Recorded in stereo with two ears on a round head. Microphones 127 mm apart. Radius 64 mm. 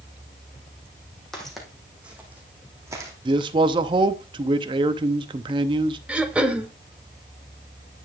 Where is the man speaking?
35° right (ahead or behind), 0.7 m.